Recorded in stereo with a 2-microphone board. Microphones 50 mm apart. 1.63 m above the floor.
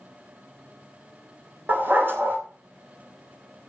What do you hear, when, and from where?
1.7 s a dog barking: 45° right (ahead or behind), 3 m